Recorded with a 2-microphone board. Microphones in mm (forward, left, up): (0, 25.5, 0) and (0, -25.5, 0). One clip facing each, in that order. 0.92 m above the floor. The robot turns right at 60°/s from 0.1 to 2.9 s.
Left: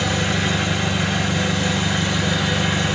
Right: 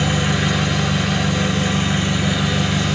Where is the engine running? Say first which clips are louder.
Right 2 dB; 140° right, 1.4 m; by 3.0 s 30° left, 1.4 m.